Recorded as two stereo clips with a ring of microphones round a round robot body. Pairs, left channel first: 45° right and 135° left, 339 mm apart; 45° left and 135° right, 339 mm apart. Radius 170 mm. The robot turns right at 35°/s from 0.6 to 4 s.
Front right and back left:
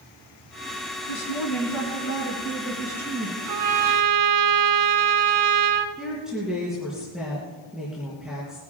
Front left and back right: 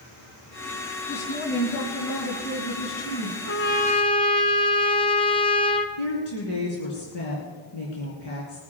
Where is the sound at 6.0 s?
45° left, 3.5 m.